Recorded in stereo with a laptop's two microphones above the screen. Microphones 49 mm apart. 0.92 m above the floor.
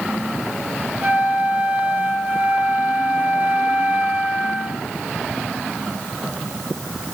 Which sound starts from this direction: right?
A flute, at 1.0 s.